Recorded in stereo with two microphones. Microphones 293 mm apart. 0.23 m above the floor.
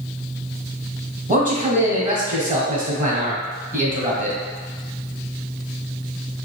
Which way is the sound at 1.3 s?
25° right (ahead or behind).